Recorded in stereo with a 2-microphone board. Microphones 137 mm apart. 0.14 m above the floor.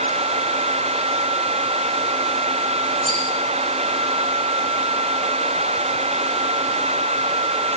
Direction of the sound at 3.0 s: 75° right (ahead or behind).